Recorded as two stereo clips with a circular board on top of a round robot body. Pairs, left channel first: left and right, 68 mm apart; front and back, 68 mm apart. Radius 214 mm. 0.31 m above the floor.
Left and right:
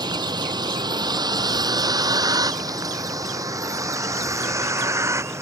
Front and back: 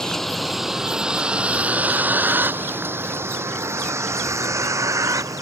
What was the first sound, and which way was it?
A vehicle, 85° right.